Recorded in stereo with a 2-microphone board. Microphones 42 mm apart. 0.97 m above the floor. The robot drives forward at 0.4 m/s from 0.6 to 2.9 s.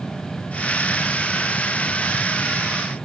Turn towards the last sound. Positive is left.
No sound to turn to.